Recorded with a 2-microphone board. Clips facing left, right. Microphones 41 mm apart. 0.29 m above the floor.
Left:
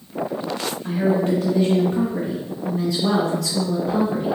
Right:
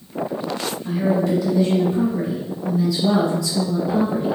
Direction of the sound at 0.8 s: 40° left (ahead or behind).